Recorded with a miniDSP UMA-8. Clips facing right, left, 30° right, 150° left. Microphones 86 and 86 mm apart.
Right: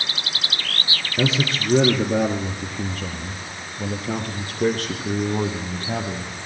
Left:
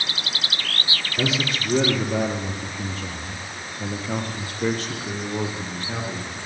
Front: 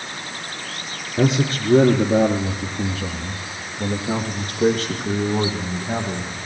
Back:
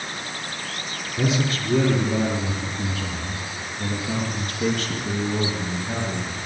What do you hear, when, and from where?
1.2 s a man speaking: 35° right, 2.5 m; by 6.4 s 85° right, 4.5 m